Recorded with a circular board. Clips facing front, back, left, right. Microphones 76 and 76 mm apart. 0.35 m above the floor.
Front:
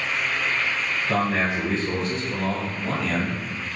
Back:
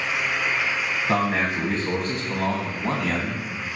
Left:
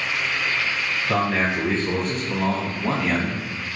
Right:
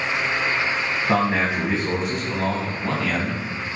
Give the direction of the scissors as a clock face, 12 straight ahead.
No scissors in this recording.